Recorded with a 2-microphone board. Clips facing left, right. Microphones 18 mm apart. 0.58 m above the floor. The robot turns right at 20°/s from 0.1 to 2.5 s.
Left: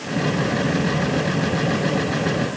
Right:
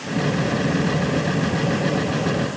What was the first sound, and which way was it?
Only background noise.